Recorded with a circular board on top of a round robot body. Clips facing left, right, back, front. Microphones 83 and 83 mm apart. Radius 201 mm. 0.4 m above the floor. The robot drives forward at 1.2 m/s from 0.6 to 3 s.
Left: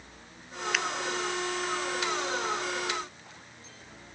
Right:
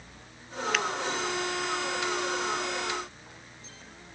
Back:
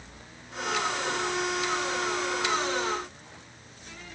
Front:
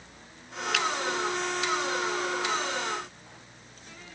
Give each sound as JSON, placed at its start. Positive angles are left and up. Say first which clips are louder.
{"t": 0.7, "sound": "a finger snap", "louder": "right 2 dB, front 1 dB", "azimuth_deg": 0}